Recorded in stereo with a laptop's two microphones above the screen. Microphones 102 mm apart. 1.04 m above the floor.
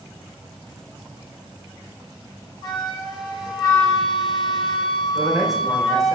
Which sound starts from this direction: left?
A flute, at 2.6 s.